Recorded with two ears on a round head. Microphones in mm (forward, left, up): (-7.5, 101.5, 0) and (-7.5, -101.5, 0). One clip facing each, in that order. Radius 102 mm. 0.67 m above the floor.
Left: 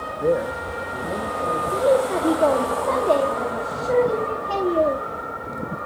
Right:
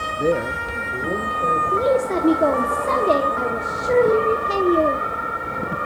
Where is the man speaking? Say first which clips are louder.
Even; 40° right (ahead or behind), 0.9 m; by 1.6 s 25° right (ahead or behind), 3 m.